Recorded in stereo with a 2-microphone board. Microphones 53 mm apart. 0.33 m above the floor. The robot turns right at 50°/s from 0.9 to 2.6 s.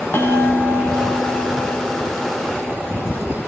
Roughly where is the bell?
Behind left.